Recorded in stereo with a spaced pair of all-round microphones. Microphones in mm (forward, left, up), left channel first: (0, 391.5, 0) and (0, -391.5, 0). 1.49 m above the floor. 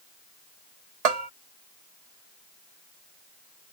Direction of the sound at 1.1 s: 50° right (ahead or behind).